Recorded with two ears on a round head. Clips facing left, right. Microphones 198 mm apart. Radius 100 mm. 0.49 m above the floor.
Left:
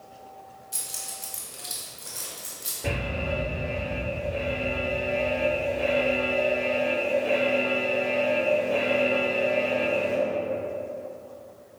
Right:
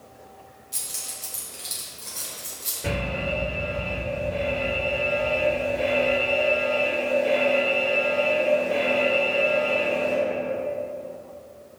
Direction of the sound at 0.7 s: 10° left (ahead or behind).